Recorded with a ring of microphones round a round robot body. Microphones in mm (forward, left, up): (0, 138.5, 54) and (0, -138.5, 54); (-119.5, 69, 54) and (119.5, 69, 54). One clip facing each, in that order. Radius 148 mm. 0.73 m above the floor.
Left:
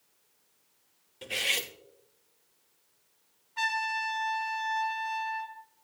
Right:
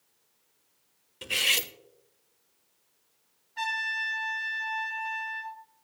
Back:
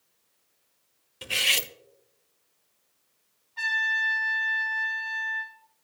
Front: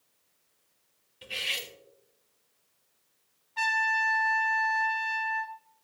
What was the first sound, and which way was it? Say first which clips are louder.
Cutlery clinking: even, back 5 dB; 160° right.